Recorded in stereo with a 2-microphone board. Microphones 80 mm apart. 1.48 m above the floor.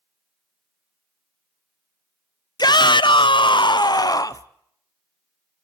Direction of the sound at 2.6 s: 55° left (ahead or behind).